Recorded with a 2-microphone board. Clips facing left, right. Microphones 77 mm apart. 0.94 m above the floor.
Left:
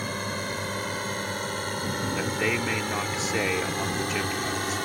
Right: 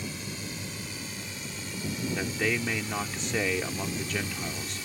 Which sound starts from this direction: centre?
A man speaking, at 2.1 s.